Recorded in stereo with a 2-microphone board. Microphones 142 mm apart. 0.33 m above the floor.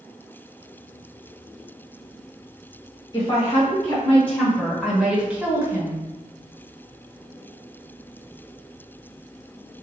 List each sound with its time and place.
3.1 s a woman speaking: 25° left (ahead or behind), 1.6 m; by 6.0 s 25° right (ahead or behind), 1.2 m